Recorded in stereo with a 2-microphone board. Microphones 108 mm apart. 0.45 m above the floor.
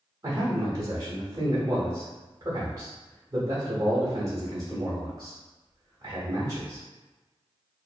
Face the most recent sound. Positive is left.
turn(degrees=-40)  # may be behind; listen again after turning